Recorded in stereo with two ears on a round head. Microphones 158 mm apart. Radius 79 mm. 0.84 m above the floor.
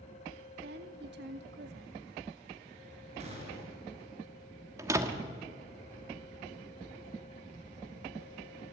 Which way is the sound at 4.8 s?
15° right (ahead or behind).